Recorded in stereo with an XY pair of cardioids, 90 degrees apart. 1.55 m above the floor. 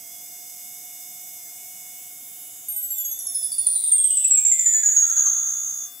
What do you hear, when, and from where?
2.7 s a chime: 5° right, 1.2 m